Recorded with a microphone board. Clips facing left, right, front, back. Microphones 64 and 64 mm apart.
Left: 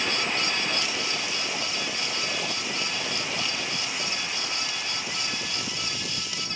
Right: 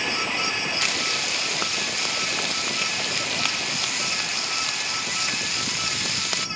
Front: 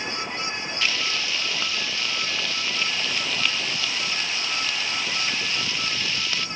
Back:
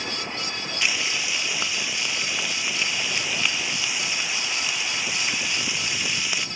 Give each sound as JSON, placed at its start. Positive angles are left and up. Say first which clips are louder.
{"t": 0.8, "sound": "frying", "louder": "right 3 dB, back 1 dB", "azimuth_deg": -105, "distance_m": 0.6}